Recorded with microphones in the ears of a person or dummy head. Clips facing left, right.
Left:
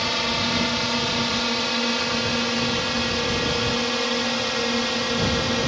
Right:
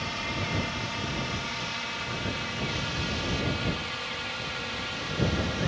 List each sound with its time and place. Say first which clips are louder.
0.0 s a drone: left 8 dB; 65° left (ahead or behind); by 5.7 s 60° left (ahead or behind)